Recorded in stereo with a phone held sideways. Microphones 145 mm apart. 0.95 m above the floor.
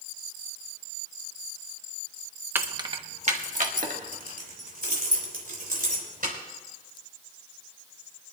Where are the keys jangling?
15° right (ahead or behind), 0.8 m; by 6.3 s 80° right, 4 m.